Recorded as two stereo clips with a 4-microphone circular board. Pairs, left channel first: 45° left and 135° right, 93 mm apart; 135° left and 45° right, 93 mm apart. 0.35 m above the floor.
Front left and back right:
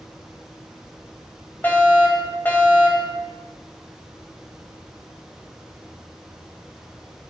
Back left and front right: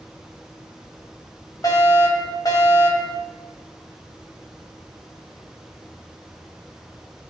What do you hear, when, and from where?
1.6 s a fire alarm: 105° left, 2.5 m